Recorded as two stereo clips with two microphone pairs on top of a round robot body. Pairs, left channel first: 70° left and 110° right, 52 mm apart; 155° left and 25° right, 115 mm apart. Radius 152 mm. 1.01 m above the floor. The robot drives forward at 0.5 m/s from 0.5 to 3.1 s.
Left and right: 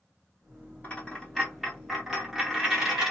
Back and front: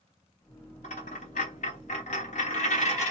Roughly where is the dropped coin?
Behind left.